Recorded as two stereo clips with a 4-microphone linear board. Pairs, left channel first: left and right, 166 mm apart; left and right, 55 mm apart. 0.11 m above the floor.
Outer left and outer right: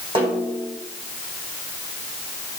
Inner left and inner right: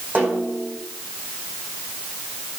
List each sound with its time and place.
0.1 s a snare drum: 35° right (ahead or behind), 5 m